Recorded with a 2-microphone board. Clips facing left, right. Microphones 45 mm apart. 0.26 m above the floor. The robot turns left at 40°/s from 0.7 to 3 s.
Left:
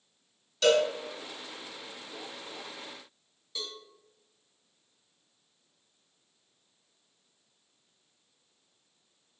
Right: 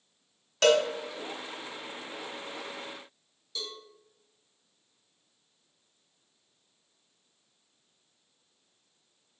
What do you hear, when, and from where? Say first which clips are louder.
0.6 s a cowbell: right 1 dB; 55° right (ahead or behind), 0.7 m; by 0.8 s 60° right (ahead or behind), 0.7 m
3.5 s a cowbell: even; 25° left (ahead or behind), 1.2 m